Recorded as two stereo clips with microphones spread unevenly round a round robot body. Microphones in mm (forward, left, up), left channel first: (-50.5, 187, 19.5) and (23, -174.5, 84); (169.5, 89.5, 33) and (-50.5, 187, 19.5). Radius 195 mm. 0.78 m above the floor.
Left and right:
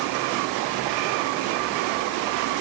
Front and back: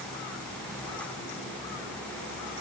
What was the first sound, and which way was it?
Only background noise.